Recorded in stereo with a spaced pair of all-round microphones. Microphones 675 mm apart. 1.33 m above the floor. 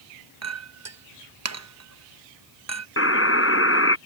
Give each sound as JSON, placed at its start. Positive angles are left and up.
{"t": 0.4, "sound": "a clink", "side_deg": -25}
{"t": 3.0, "sound": "a buzzer", "side_deg": 20}